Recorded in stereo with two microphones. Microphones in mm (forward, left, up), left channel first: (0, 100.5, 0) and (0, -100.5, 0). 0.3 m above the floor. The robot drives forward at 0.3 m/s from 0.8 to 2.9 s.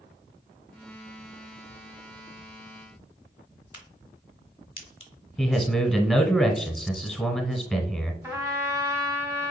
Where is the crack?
25° left (ahead or behind), 1.5 m.